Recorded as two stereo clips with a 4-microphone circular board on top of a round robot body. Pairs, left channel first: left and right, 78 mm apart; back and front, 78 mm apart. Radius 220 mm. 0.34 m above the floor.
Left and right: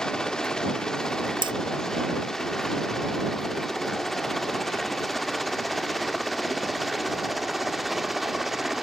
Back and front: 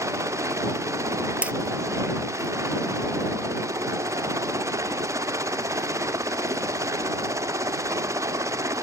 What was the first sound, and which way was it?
A helicopter, 10° left.